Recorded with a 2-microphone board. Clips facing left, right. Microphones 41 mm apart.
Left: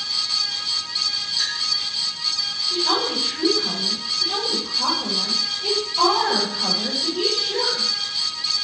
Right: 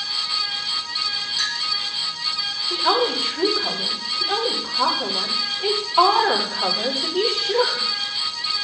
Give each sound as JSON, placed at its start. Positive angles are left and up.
{"t": 1.4, "sound": "a clink", "side_deg": -50, "distance_m": 2.5}
{"t": 2.7, "sound": "a woman speaking", "side_deg": -70, "distance_m": 3.5}